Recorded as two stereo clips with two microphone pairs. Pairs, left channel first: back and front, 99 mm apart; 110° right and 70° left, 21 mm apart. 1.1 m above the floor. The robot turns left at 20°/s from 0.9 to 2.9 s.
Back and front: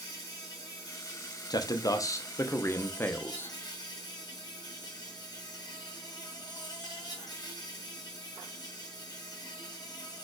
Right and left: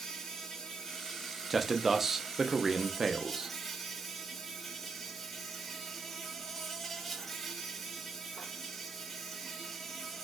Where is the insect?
155° right, 1.5 m; by 10.2 s 165° left, 1.5 m.